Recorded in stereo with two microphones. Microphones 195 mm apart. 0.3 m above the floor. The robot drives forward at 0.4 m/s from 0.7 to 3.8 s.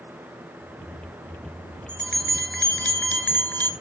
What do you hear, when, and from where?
1.9 s a bell: 5° left (ahead or behind), 1.9 m; by 3.7 s 10° left (ahead or behind), 1.2 m